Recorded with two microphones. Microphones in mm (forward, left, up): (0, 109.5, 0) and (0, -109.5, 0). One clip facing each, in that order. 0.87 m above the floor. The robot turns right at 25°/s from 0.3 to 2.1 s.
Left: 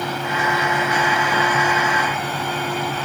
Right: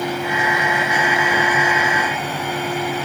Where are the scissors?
No scissors in this recording.